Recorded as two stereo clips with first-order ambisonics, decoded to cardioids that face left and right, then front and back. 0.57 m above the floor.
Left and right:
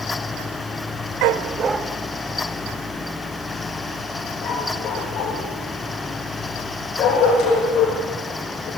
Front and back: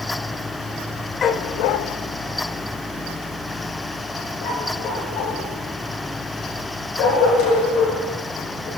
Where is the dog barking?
65° right, 0.8 m; by 8.7 s 40° left, 9.5 m.